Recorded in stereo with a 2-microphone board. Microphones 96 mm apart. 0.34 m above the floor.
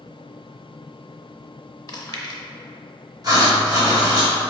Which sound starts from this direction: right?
Writing, at 3.2 s.